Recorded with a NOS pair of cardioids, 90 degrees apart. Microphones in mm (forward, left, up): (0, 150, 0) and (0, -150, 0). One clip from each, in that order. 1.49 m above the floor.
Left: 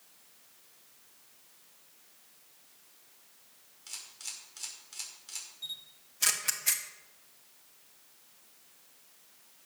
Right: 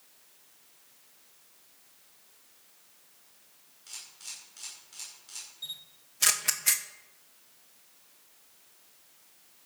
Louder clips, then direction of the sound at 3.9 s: Left 1 dB; 30° left.